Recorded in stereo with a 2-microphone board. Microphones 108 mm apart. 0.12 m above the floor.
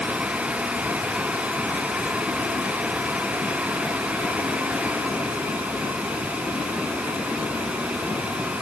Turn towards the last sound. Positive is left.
No sound to turn to.